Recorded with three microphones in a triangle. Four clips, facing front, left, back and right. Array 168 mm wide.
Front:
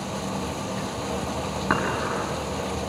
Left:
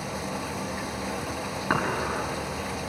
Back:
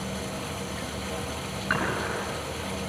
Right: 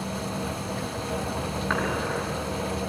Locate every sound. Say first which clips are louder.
0.0 s running water: right 1 dB, front 4 dB; 35° left, 0.8 m
1.7 s dishes clattering: left 1 dB, front 3 dB; 30° left, 6 m